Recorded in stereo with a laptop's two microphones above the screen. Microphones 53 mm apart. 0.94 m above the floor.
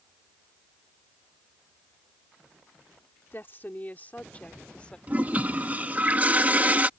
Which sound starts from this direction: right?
A toilet flushing, at 5.1 s.